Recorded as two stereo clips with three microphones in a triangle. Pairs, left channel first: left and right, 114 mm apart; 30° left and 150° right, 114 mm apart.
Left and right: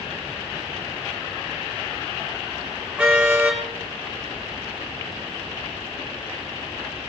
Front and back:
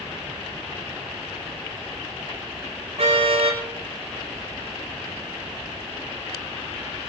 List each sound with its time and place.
3.0 s a car horn: 170° right, 8 m